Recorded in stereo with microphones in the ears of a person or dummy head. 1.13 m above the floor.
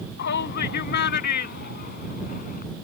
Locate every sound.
0.2 s a shout: 55° left (ahead or behind); by 2.6 s 45° left (ahead or behind)